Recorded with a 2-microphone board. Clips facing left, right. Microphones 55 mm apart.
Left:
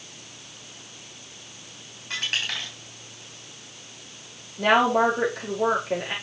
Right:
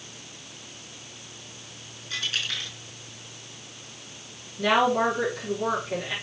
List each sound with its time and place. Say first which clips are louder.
2.1 s a dropped coin: left 2 dB; 70° left (ahead or behind), 3 m
4.6 s a woman speaking: left 2 dB; 45° left (ahead or behind), 5.5 m